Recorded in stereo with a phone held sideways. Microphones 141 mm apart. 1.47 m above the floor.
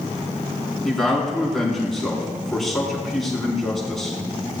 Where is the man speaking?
Centre (ahead or behind), 4 m.